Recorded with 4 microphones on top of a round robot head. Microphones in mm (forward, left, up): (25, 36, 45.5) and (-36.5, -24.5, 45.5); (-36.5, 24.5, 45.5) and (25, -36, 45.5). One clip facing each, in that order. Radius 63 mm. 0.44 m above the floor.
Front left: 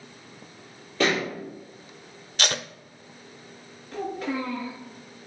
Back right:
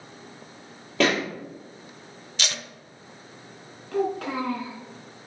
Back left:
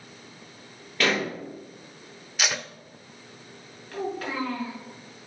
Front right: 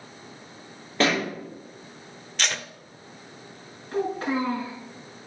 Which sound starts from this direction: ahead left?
Tape being pulled, at 2.4 s.